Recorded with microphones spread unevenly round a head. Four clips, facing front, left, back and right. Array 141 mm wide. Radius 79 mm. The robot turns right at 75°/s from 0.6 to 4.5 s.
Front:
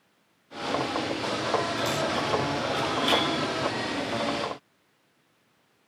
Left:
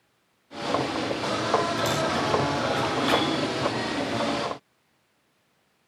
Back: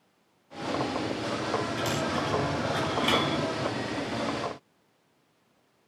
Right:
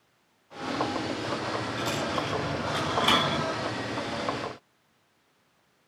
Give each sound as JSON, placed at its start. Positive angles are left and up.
{"t": 1.8, "sound": "a dropped coin", "azimuth_deg": 135, "distance_m": 4.5}